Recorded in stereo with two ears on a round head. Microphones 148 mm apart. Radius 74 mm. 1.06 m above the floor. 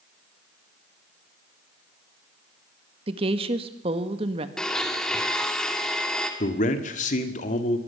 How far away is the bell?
I don't hear a bell.